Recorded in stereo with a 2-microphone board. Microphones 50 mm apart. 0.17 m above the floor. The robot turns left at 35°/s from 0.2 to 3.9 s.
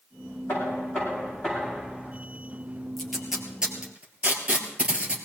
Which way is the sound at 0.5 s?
60° left.